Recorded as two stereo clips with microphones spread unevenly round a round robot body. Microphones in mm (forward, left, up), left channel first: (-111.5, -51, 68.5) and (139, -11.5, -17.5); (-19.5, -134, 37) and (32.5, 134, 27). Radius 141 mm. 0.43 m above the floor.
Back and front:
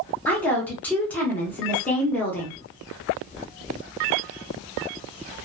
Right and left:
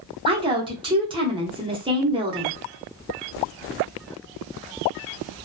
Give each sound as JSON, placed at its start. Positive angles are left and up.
{"t": 0.2, "sound": "a woman speaking", "azimuth_deg": 60, "distance_m": 0.8}